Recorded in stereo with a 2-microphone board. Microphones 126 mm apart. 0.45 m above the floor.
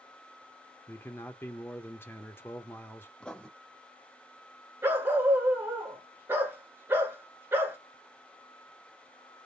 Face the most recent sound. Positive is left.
turn(degrees=-20)  # may be behind; listen again after turning